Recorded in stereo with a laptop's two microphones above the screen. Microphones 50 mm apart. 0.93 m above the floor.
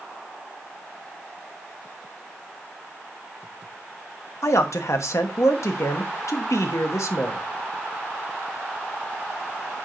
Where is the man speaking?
70° left (ahead or behind), 0.9 m.